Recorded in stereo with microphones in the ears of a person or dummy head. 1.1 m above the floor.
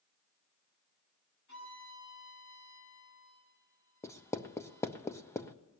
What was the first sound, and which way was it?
A violin, 60° left (ahead or behind).